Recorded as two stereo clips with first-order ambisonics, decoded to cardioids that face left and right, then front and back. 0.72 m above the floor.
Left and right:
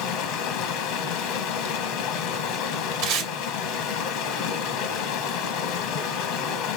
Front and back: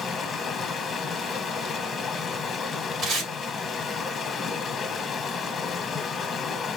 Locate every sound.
0.0 s running water: 70° left, 1.2 m
3.0 s tape being pulled: 120° right, 2 m